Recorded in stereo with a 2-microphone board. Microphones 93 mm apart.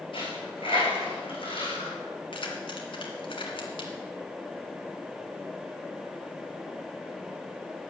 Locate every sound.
0.1 s a dropped coin: 70° left (ahead or behind), 5 m
2.3 s keys jangling: 70° left (ahead or behind), 2.5 m